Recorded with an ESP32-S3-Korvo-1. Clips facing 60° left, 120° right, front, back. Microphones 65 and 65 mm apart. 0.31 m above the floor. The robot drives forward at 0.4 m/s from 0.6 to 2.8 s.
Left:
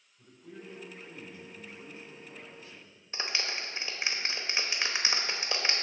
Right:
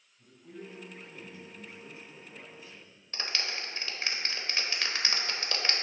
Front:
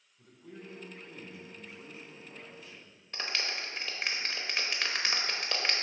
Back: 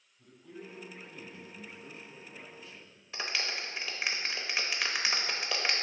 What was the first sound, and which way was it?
A man speaking, 15° left.